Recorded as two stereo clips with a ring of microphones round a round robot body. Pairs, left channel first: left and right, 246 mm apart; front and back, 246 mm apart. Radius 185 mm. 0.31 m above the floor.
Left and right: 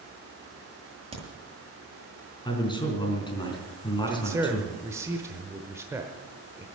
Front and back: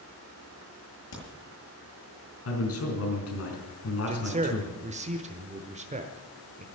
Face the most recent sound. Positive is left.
turn(degrees=-160)